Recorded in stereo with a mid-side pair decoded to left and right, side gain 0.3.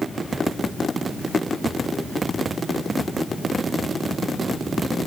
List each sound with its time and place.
Only background noise.